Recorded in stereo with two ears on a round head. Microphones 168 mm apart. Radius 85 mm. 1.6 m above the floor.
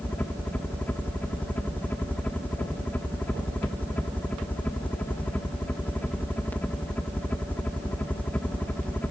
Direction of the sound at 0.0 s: 10° left (ahead or behind).